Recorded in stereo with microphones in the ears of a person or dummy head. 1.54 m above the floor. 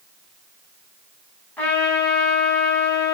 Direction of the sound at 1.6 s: 10° left (ahead or behind).